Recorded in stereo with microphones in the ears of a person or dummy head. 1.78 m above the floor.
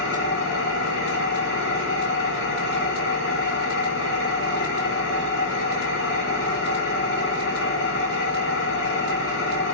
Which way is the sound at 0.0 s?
65° left (ahead or behind).